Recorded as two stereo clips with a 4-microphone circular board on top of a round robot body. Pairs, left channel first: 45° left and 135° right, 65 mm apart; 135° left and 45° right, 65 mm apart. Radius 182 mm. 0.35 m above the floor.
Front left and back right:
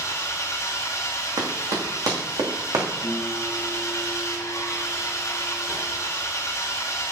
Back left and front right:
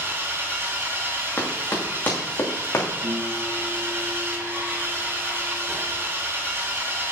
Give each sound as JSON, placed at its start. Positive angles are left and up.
{"t": 0.0, "sound": "an engine running", "azimuth_deg": 10, "distance_m": 1.5}
{"t": 1.4, "sound": "running footsteps", "azimuth_deg": -155, "distance_m": 2.5}
{"t": 3.0, "sound": "a guitar", "azimuth_deg": -55, "distance_m": 4.0}